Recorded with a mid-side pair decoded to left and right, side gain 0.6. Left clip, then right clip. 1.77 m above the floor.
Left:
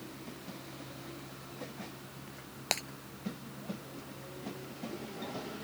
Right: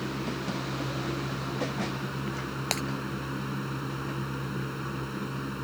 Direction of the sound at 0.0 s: 65° right.